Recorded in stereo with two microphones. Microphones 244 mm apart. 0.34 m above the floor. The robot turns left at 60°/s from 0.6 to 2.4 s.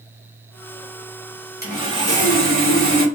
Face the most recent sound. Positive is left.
turn(degrees=-65)